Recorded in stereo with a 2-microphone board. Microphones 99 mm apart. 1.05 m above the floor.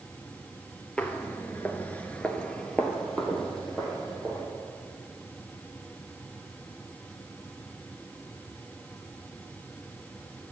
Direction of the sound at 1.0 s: 10° left (ahead or behind).